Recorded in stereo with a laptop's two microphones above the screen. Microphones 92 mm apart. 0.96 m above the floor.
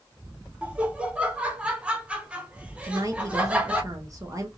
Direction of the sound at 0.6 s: 10° right (ahead or behind).